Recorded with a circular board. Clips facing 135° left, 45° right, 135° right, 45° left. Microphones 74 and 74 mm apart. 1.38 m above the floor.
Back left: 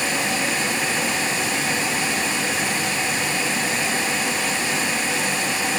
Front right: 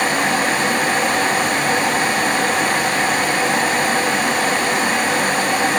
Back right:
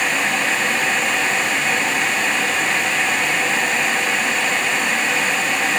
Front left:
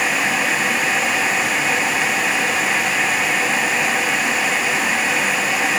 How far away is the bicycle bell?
No bicycle bell in this recording.